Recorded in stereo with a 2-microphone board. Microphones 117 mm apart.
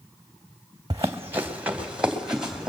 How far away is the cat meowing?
No cat meowing in this recording.